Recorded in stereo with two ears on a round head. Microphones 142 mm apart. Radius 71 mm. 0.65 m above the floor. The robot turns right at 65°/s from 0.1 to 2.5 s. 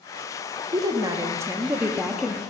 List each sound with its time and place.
0.7 s a woman speaking: 20° right (ahead or behind), 0.5 m; by 2.4 s 5° left (ahead or behind), 0.5 m